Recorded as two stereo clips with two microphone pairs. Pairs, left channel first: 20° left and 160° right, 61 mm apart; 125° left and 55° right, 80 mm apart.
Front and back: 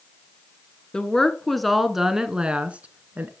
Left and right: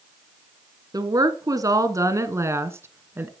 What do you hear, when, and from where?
0.9 s a woman speaking: 55° right, 1.6 m; by 3.3 s 115° right, 1.6 m